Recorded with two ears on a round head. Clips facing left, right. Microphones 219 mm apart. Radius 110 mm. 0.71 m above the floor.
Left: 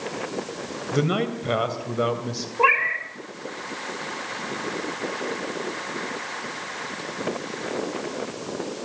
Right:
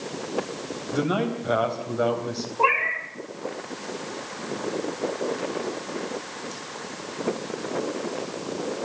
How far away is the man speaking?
About 3 m.